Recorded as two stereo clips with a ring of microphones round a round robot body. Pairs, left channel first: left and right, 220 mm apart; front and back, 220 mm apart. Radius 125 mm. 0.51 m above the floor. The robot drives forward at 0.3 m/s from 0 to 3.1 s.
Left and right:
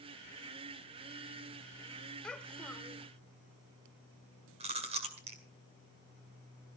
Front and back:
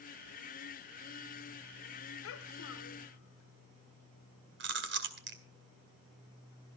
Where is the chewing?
150° right, 2 m.